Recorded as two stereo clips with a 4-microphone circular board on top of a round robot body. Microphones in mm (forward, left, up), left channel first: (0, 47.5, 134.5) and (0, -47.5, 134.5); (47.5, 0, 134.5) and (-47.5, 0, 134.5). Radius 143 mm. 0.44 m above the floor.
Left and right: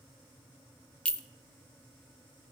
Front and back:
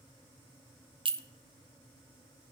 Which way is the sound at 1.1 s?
170° left.